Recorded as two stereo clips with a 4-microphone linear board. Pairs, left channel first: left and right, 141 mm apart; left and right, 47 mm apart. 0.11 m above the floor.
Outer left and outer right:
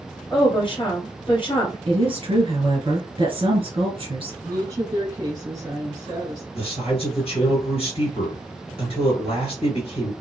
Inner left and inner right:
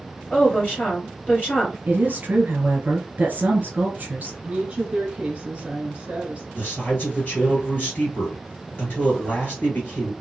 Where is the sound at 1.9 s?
40° right (ahead or behind), 1.3 m.